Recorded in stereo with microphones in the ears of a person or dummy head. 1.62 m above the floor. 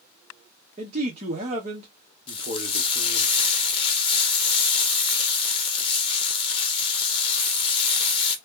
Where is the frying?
30° left (ahead or behind), 0.8 m.